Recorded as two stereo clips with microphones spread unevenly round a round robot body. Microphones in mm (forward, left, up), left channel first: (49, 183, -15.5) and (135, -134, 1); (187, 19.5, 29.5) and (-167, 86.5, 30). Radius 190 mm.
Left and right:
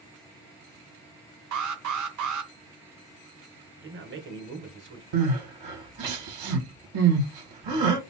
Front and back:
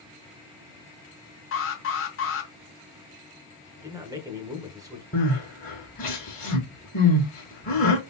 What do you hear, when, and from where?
1.5 s an alarm: 60° right, 1.1 m
3.8 s a man speaking: 115° right, 1.0 m
5.1 s crying: 85° right, 2 m